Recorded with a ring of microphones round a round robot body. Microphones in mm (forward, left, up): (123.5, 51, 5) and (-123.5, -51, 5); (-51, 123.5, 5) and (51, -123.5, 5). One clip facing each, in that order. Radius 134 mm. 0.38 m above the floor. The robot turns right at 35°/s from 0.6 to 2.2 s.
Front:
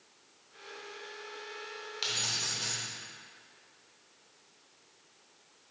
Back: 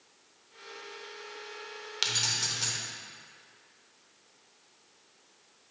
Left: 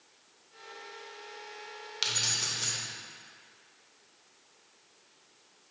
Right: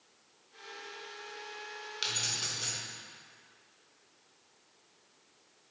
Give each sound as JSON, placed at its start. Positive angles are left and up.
{"t": 2.0, "sound": "keys jangling", "azimuth_deg": -165, "distance_m": 0.9}